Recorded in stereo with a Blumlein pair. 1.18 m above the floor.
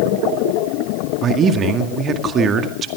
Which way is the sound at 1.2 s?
25° right.